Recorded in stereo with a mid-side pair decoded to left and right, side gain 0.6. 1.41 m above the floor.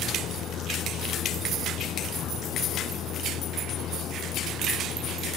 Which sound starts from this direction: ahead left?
A vehicle, at 0.0 s.